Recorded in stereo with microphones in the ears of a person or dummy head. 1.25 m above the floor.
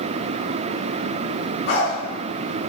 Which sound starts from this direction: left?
A dog barking, at 1.7 s.